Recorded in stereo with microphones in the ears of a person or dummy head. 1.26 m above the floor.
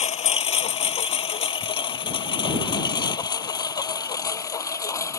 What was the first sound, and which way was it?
A lawn mower, 35° left (ahead or behind).